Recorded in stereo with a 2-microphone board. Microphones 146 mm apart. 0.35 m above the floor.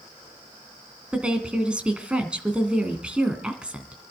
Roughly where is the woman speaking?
Centre.